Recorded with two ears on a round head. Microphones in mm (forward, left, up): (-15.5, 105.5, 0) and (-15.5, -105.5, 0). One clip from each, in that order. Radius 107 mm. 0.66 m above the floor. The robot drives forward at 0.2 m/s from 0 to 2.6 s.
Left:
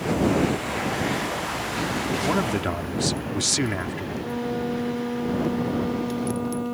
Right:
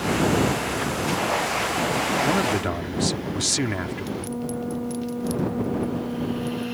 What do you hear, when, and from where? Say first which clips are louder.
2.2 s a man speaking: right 2 dB; centre (ahead or behind)
4.2 s a flute: left 3 dB; 60° left (ahead or behind)